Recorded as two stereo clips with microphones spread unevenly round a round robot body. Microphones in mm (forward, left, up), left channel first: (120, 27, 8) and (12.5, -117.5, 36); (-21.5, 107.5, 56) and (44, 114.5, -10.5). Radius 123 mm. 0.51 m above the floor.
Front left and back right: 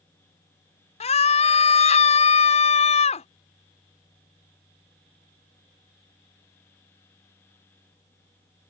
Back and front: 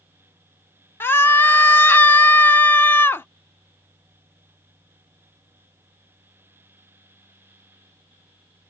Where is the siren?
I don't hear a siren.